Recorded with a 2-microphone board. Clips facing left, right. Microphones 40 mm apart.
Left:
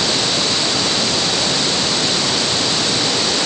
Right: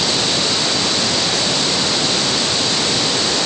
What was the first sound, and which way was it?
Only background noise.